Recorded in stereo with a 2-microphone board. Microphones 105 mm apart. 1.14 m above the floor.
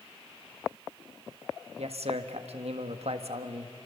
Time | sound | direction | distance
1.8 | a man speaking | 80° right | 1.5 m